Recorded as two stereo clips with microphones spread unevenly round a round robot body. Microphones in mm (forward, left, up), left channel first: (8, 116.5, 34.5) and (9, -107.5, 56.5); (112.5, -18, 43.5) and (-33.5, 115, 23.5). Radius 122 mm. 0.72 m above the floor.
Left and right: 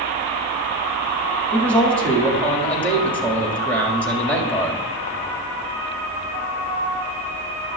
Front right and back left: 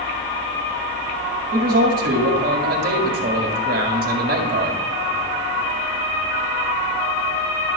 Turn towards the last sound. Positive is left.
turn(degrees=170)